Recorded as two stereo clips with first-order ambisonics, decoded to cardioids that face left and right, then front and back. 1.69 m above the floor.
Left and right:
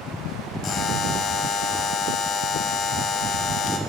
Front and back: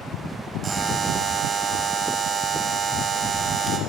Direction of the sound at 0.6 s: 115° left.